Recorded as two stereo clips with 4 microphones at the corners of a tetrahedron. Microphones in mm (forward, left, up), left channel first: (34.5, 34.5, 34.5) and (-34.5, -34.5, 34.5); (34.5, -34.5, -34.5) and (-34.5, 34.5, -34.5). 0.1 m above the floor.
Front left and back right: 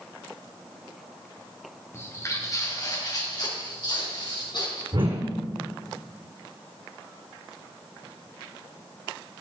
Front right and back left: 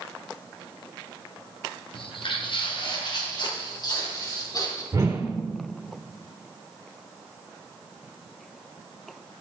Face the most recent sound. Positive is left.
turn(degrees=-165)